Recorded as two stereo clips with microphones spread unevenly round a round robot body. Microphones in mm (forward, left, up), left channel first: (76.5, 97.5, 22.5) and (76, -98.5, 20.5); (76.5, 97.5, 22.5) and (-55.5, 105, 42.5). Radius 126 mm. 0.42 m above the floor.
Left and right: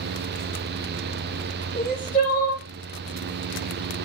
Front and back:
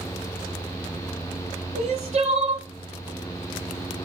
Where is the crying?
150° left, 4.5 m.